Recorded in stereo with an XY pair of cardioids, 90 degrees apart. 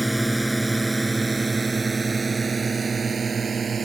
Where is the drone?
10° right; by 3.9 s 50° right.